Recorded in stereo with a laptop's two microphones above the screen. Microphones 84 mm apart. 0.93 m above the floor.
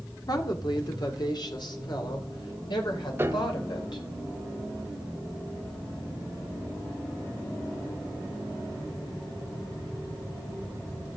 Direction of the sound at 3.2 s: 25° right (ahead or behind).